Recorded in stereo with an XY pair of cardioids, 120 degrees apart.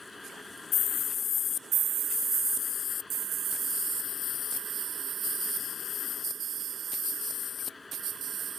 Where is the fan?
15° left.